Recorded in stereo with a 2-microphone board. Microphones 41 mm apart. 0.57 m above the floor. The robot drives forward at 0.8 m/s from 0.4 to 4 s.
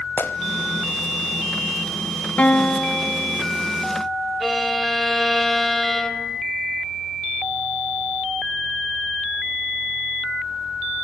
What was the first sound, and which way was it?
A gunshot, 70° left (ahead or behind).